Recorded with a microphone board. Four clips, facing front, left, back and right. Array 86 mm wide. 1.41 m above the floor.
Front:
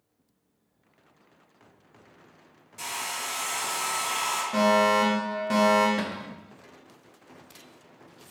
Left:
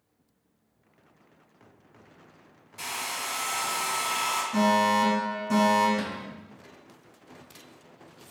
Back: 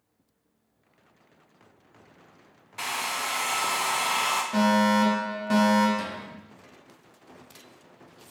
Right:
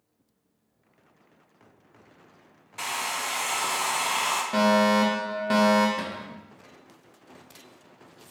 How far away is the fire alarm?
About 1.3 m.